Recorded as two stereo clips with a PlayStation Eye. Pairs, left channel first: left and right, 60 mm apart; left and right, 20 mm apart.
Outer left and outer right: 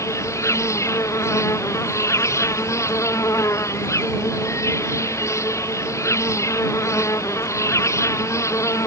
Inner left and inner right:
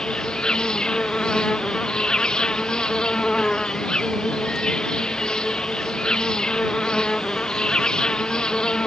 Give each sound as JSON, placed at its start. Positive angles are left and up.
{"t": 0.0, "sound": "an insect", "side_deg": 55}